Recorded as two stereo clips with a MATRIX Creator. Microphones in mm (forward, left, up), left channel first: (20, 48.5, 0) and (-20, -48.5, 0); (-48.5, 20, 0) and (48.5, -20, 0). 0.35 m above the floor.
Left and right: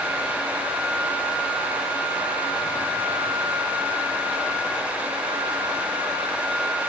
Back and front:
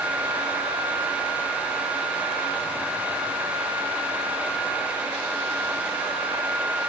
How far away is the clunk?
I don't hear a clunk.